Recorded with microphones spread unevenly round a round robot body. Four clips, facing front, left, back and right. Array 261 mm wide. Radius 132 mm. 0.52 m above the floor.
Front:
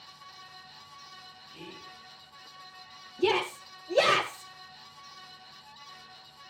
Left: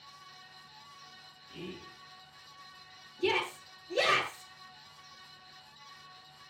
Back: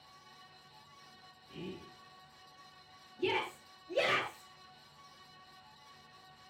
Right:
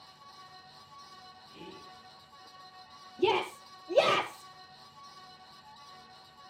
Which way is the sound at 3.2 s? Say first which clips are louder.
Right 3 dB, front 8 dB; 50° right.